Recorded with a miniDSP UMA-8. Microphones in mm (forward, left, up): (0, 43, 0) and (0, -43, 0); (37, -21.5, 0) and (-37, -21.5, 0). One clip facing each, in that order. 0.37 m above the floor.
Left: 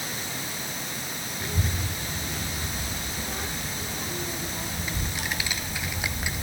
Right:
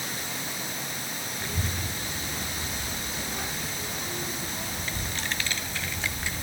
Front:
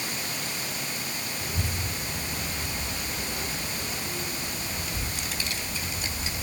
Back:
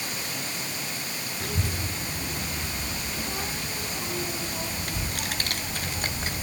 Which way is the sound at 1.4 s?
175° left.